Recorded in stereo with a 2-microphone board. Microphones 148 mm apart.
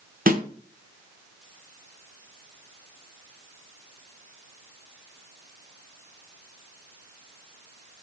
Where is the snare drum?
75° right (ahead or behind), 0.6 m.